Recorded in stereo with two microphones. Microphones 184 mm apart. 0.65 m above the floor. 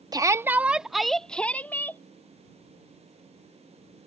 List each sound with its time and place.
0.1 s a shout: 20° right (ahead or behind); by 2.0 s 10° left (ahead or behind)